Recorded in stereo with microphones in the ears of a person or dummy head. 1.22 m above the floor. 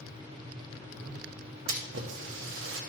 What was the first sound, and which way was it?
A splash, 60° right (ahead or behind).